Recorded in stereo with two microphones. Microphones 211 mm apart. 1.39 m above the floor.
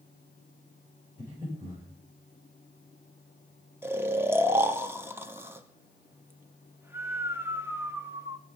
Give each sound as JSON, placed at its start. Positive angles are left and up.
{"t": 1.2, "sound": "breathing", "side_deg": -15, "distance_m": 8.0}
{"t": 3.8, "sound": "snoring", "side_deg": -10, "distance_m": 0.8}